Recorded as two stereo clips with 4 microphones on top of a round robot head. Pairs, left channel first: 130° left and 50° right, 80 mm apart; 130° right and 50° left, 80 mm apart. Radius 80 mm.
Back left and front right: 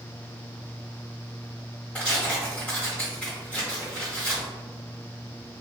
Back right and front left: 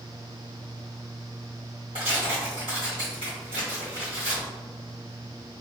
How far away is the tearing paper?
About 1.8 m.